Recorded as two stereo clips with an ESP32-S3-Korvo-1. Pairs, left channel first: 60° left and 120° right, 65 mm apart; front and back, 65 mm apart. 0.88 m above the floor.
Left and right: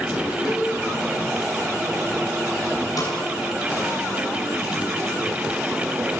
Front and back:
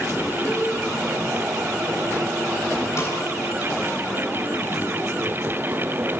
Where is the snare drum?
40° left, 8 m.